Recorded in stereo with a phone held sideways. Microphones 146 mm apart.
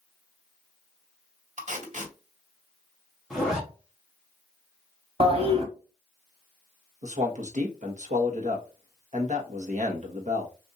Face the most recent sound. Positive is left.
turn(degrees=-55)  # may be behind; listen again after turning